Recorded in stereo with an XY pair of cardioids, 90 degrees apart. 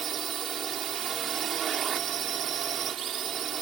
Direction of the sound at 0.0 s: 60° right.